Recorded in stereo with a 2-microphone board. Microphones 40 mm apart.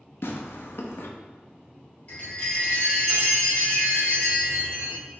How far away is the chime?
About 1.9 m.